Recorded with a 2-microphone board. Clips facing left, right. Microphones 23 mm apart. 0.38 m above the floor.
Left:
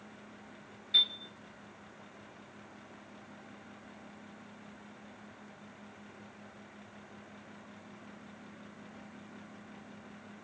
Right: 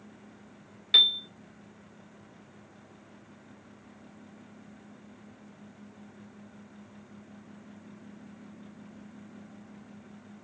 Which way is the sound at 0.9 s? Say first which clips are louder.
Right 7 dB; 55° right (ahead or behind).